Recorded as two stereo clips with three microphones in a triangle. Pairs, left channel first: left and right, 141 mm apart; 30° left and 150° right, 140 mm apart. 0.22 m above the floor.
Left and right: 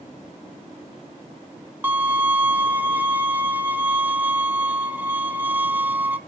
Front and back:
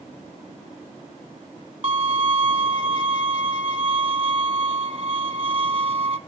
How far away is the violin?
About 0.6 m.